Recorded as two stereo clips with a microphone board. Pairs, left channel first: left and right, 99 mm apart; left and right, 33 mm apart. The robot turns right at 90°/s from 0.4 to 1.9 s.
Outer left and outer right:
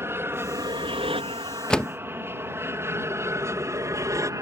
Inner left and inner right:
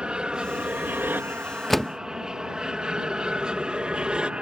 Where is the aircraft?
25° right (ahead or behind); by 4.4 s 35° right (ahead or behind).